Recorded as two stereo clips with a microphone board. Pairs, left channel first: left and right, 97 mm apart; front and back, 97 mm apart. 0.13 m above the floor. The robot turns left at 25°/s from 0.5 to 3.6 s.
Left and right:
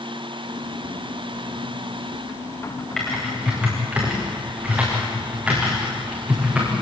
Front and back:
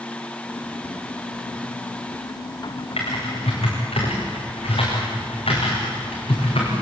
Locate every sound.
3.0 s typing on a keyboard: 5° left, 7.5 m; by 6.7 s 10° right, 7.5 m